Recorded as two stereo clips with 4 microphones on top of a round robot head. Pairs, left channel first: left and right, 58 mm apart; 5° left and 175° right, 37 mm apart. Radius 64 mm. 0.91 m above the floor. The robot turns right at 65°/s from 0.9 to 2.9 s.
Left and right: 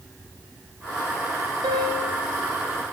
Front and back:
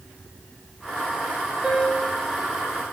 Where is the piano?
95° right, 1.0 m; by 2.2 s 60° right, 1.0 m.